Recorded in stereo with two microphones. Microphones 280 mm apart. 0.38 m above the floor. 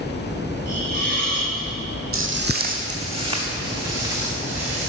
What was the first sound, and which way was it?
A hiss, 45° left (ahead or behind).